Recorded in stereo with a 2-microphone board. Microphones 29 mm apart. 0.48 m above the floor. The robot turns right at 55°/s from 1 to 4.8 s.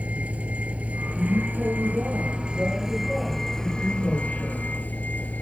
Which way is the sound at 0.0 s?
120° right.